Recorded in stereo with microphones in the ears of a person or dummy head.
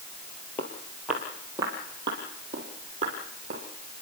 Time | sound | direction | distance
0.6 | footsteps | 10° left (ahead or behind) | 2.0 m